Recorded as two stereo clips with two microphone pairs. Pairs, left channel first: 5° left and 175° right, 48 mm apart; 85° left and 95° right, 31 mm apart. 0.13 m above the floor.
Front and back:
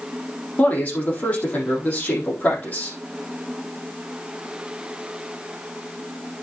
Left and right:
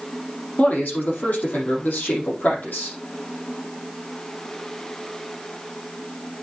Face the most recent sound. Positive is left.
turn(degrees=60)